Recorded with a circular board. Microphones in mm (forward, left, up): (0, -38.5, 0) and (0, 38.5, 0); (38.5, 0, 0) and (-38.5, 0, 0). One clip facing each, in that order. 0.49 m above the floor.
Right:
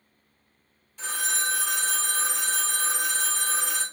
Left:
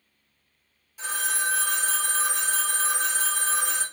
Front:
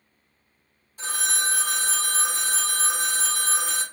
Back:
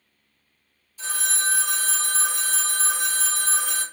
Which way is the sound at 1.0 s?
5° left.